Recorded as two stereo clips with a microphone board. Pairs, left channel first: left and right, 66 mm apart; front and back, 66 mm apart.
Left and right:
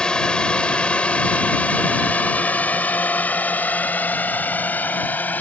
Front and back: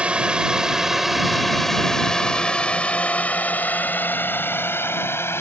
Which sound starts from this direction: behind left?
A drone, at 0.0 s.